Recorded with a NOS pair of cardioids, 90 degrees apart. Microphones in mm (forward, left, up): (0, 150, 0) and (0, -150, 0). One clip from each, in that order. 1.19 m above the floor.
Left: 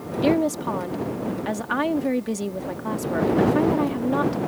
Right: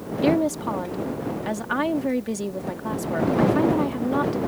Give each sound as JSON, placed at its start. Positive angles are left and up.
{"t": 0.2, "sound": "a woman speaking", "azimuth_deg": 5}